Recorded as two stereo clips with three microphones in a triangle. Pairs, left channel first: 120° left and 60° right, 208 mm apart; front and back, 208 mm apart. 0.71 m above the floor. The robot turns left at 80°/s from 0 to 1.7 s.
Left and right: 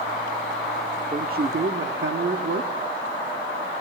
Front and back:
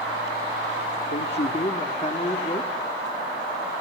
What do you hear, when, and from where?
1.1 s a man speaking: 5° right, 1.3 m; by 2.7 s 55° right, 1.3 m